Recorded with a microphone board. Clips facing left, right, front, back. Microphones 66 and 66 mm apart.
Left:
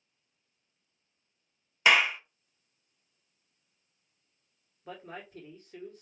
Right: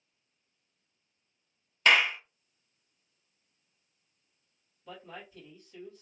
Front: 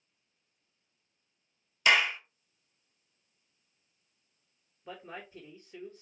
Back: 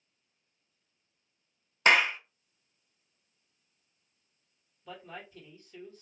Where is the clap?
165° left, 0.8 m.